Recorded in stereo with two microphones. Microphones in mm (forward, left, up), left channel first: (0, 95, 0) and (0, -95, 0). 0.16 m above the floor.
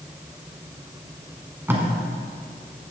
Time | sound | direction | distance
1.7 | tape being pulled | 10° right (ahead or behind) | 1.3 m